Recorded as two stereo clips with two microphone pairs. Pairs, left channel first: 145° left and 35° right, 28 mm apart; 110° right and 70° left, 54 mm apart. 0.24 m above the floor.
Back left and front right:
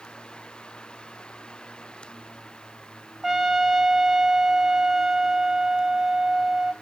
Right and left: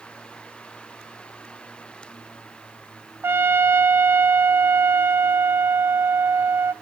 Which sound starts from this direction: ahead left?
A trumpet, at 3.2 s.